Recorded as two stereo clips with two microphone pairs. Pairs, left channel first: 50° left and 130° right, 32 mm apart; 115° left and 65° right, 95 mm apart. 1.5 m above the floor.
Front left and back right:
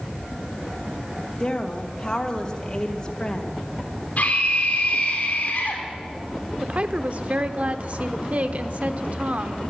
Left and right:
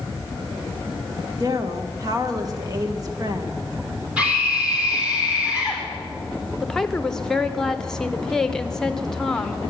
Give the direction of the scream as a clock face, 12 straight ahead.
12 o'clock.